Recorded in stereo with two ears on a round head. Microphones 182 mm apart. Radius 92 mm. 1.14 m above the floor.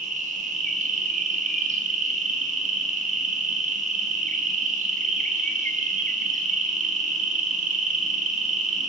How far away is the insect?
About 6 m.